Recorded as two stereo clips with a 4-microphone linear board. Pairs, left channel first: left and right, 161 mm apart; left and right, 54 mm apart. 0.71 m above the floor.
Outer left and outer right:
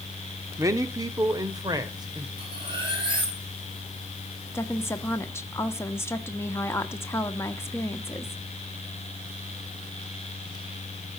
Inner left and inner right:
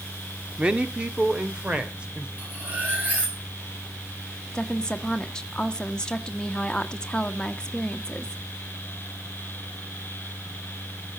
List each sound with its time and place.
0.6 s a man speaking: 20° right (ahead or behind), 1.3 m; by 2.3 s 25° right (ahead or behind), 2.5 m
2.4 s cutlery clinking: 30° right (ahead or behind), 5.5 m
4.5 s a woman speaking: 15° left (ahead or behind), 1.3 m